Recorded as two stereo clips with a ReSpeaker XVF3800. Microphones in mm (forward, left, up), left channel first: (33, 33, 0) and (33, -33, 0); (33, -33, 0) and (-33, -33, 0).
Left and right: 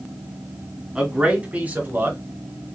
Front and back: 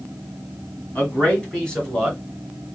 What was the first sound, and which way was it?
A man speaking, 25° right.